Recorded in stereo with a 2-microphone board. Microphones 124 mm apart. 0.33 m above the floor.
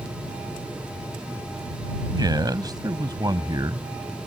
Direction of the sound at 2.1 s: 30° right (ahead or behind).